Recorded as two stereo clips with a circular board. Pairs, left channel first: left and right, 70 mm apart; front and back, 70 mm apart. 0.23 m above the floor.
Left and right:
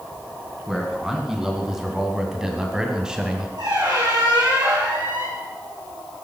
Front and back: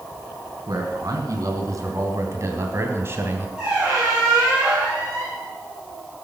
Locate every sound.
0.7 s a man speaking: 170° right, 3 m; by 3.5 s 160° right, 1.8 m
3.6 s a squeak: 100° right, 5 m